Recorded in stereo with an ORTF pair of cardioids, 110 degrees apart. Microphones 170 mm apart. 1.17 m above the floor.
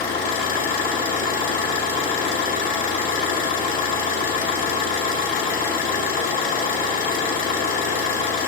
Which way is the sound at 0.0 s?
55° left.